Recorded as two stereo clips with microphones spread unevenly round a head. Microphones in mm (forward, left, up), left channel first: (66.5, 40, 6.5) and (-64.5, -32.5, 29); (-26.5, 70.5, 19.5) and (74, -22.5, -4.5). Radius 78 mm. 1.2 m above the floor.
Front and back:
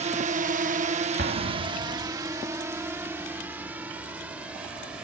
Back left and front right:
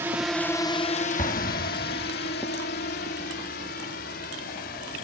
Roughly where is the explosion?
Behind.